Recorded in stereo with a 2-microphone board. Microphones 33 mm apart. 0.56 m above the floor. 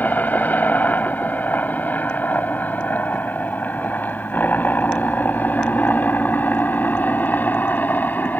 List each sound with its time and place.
0.0 s a helicopter: 65° left (ahead or behind); by 8.4 s 70° left (ahead or behind)